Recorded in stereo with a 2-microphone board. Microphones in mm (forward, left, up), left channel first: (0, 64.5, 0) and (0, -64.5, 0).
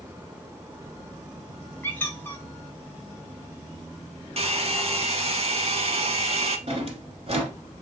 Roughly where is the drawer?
Right.